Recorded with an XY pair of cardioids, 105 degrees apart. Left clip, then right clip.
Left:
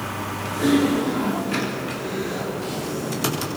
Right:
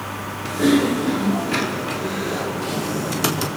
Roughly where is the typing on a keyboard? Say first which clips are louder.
Right 2 dB; ahead right.